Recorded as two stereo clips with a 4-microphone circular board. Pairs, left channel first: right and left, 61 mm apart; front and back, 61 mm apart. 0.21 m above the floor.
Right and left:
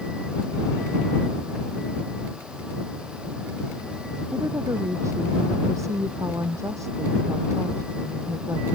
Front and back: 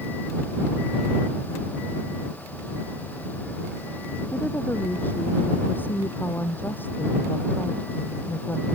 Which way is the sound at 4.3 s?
60° left.